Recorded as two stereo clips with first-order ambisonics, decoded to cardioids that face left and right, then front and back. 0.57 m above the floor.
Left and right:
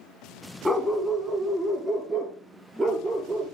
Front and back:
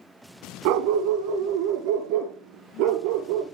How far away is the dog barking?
About 1.1 m.